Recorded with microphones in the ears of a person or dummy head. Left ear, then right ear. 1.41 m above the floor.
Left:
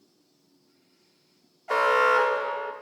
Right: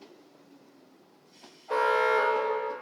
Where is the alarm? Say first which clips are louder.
Left 4 dB; 65° left (ahead or behind), 1.0 m.